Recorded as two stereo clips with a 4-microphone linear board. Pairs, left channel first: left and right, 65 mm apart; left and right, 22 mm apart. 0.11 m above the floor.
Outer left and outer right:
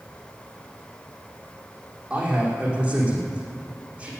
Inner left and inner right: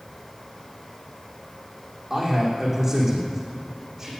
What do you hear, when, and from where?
2.1 s a man speaking: 15° right (ahead or behind), 6 m